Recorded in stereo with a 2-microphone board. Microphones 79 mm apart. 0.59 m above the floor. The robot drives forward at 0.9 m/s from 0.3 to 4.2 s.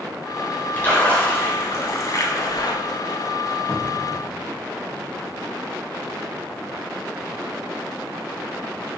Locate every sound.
0.8 s a splash: 25° left (ahead or behind), 2.5 m; by 2.7 s 65° left (ahead or behind), 1.0 m
3.7 s a cupboard door: 30° left (ahead or behind), 1.3 m